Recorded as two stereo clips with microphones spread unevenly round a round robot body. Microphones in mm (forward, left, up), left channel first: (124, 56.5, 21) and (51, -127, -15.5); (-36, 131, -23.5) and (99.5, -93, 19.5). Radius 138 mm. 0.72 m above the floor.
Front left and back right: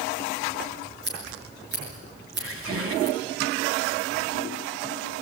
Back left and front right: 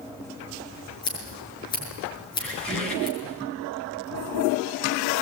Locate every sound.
1.0 s scissors: 165° right, 6.5 m
2.4 s a squeak: 155° right, 4 m